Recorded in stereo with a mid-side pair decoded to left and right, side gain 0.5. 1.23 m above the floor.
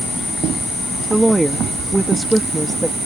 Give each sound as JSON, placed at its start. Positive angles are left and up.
{"t": 1.1, "sound": "a woman speaking", "azimuth_deg": -15}